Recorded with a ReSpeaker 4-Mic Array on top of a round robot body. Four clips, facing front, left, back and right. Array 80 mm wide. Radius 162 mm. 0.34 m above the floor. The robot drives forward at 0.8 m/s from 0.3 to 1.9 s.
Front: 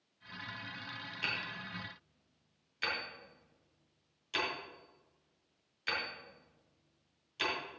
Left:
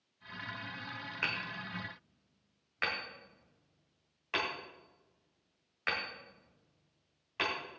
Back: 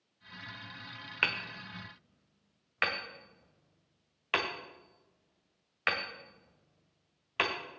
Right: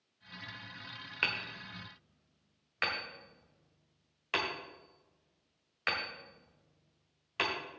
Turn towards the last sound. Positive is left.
turn(degrees=-170)